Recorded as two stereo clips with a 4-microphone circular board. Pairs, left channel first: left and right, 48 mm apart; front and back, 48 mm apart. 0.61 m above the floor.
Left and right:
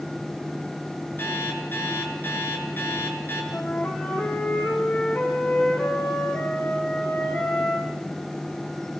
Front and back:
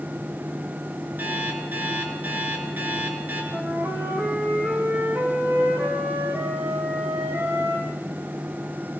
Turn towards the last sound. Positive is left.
turn(degrees=145)